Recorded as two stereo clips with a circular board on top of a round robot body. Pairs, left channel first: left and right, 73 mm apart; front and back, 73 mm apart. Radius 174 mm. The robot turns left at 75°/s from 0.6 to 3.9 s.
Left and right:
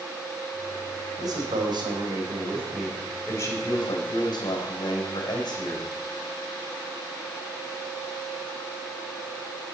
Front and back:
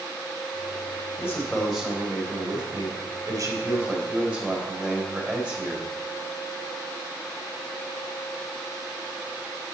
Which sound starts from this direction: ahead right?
A man speaking, at 1.2 s.